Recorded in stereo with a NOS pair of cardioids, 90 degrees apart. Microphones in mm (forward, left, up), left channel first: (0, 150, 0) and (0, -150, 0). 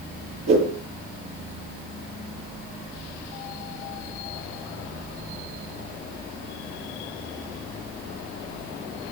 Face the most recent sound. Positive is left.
turn(degrees=-60)